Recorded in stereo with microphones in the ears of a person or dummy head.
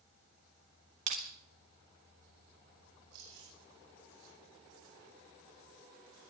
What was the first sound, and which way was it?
Crushing, 40° right (ahead or behind).